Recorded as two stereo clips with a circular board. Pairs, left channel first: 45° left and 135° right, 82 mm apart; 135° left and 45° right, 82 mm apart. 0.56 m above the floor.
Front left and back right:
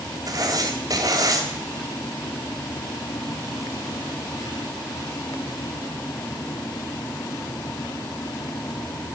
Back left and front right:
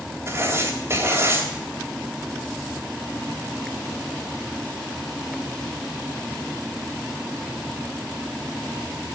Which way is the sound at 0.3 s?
100° right.